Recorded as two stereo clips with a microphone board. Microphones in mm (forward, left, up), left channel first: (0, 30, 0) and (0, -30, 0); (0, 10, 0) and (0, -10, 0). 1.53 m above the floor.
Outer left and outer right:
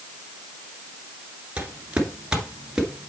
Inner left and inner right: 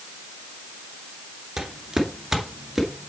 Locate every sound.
1.6 s footsteps: 20° right (ahead or behind), 1.5 m; by 3.1 s 10° right (ahead or behind), 1.7 m